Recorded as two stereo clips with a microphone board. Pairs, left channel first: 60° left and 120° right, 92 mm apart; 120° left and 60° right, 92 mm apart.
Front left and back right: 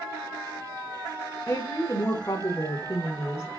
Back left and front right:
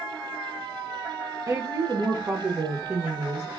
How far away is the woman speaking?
About 1.3 m.